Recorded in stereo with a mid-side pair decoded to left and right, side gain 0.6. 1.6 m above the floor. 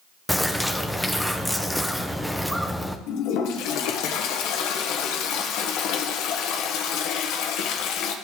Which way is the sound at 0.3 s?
Straight ahead.